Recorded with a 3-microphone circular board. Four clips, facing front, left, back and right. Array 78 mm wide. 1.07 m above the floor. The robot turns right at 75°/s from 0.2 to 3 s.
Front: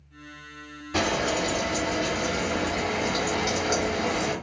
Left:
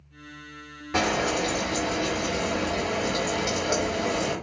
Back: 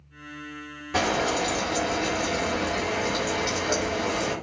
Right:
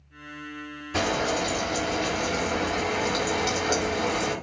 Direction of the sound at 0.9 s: 115° left.